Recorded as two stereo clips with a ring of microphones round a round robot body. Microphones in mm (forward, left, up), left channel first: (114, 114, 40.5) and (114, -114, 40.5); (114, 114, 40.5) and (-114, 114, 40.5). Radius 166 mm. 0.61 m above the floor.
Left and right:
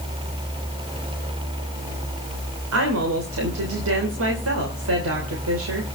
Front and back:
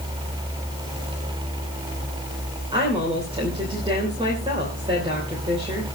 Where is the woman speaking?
105° right, 3 m.